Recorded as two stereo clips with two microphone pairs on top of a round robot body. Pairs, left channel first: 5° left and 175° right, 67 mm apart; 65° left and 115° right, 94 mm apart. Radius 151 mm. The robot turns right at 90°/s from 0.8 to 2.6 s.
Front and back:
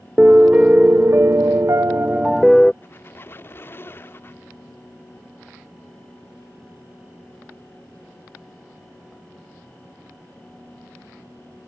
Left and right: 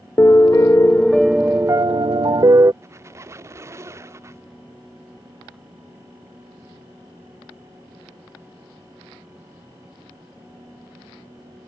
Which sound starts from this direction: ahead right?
A squeak, at 2.8 s.